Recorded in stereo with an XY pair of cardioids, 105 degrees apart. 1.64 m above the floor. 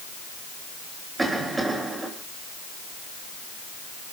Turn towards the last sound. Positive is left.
turn(degrees=-20)